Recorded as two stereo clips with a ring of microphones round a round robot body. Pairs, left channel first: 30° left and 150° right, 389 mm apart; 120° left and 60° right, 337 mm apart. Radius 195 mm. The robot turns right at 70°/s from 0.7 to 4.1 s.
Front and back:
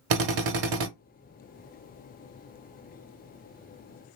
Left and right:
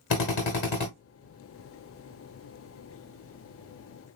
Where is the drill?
175° left, 1.1 m; by 0.9 s 170° right, 1.1 m.